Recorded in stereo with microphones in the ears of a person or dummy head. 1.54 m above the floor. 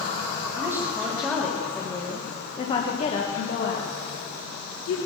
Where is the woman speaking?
15° right (ahead or behind), 2 m; by 5.0 s 70° left (ahead or behind), 2 m.